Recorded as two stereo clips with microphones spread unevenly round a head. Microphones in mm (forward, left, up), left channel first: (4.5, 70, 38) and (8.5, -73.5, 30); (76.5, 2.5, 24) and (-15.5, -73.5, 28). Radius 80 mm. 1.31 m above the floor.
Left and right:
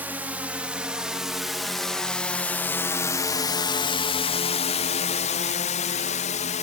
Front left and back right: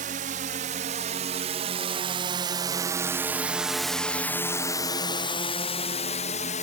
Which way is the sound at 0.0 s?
165° right.